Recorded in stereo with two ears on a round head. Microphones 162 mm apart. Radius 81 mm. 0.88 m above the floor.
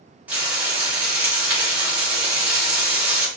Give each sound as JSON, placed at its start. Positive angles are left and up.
{"t": 0.3, "sound": "frying", "side_deg": -10, "distance_m": 1.3}